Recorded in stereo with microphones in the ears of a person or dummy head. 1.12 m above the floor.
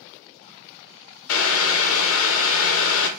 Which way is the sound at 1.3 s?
70° left (ahead or behind).